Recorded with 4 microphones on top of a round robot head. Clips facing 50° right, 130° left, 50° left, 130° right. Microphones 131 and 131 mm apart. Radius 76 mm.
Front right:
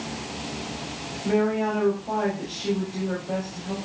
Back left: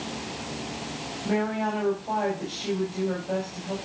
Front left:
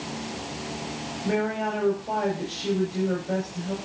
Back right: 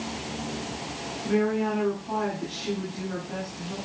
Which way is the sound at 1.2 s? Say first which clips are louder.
Front right 4 dB, back right 2 dB; 40° left.